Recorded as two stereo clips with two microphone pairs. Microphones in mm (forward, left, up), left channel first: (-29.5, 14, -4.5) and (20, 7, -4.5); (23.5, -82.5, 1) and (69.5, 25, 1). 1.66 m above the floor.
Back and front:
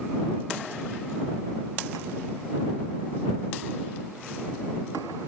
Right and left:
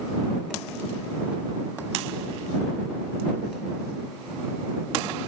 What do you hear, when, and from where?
Only background noise.